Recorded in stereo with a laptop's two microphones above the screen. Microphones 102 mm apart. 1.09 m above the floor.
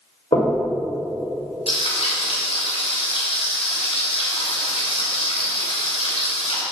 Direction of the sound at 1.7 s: 75° left (ahead or behind).